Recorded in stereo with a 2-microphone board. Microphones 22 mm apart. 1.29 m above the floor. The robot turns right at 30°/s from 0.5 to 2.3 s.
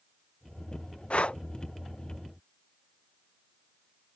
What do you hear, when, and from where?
1.1 s breathing: 70° left (ahead or behind); by 1.4 s 60° left (ahead or behind)